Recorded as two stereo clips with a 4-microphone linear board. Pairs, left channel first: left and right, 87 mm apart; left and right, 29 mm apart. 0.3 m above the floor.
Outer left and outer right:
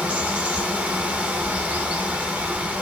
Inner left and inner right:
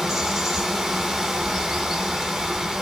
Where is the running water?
15° right (ahead or behind), 0.9 m.